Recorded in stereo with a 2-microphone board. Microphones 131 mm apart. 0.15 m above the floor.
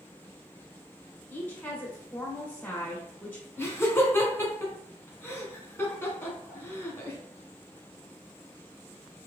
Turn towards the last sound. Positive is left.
turn(degrees=20)  # may be behind; listen again after turning